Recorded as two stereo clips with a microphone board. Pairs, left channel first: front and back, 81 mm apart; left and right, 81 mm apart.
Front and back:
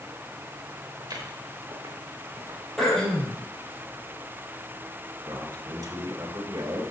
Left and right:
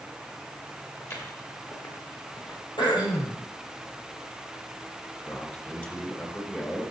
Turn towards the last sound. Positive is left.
turn(degrees=150)